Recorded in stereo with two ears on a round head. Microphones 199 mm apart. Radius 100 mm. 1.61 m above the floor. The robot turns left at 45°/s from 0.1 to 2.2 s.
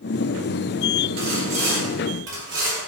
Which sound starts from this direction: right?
Sawing, at 1.2 s.